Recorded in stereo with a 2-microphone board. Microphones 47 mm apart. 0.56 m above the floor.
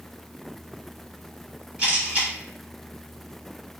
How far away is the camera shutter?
About 1.1 m.